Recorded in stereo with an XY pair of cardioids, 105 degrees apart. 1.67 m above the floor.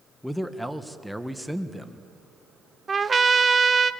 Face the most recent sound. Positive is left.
turn(degrees=-30)